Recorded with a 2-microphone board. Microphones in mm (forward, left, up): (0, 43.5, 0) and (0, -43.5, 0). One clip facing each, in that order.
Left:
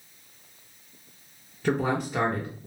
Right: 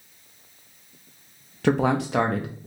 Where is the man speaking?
75° right (ahead or behind), 0.7 m.